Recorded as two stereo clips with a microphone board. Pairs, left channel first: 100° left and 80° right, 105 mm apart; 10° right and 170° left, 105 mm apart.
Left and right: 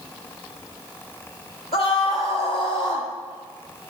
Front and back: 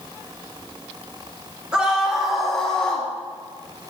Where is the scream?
90° left, 3 m; by 3.1 s 70° left, 3.5 m.